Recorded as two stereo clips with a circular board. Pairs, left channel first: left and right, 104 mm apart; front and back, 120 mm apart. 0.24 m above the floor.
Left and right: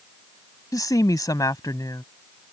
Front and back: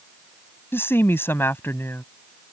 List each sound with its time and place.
0.7 s a woman speaking: 60° left